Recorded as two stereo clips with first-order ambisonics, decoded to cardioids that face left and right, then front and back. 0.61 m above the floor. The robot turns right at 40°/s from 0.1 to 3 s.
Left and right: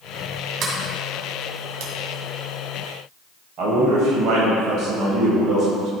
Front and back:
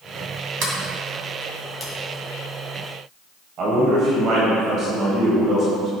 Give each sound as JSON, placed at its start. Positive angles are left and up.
{"t": 0.6, "sound": "a sliding door", "azimuth_deg": -145, "distance_m": 2.0}
{"t": 3.6, "sound": "a man speaking", "azimuth_deg": -135, "distance_m": 2.5}